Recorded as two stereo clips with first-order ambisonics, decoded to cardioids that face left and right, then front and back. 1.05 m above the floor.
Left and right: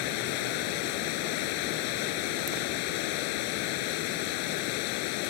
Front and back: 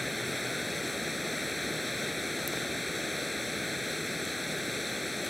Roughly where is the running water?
Left.